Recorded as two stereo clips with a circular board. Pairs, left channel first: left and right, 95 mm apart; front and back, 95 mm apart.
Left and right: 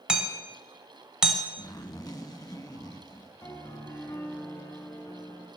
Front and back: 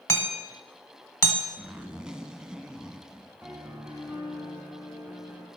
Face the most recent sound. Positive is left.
turn(degrees=115)